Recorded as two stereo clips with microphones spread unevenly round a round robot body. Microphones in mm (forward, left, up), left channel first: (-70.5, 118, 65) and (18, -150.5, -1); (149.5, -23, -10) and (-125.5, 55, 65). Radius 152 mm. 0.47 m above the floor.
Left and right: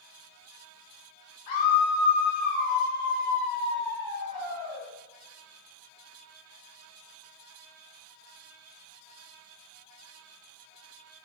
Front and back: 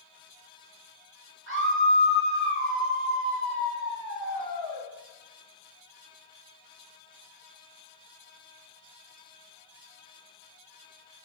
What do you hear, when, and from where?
1.5 s a scream: 110° left, 1.9 m